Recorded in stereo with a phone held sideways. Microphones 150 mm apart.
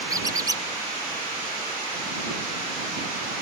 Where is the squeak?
25° right (ahead or behind).